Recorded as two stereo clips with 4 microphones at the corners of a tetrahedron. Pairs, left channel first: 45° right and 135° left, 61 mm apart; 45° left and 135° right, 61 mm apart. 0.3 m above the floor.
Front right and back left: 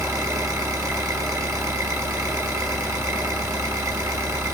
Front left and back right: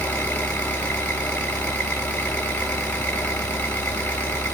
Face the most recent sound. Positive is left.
turn(degrees=110)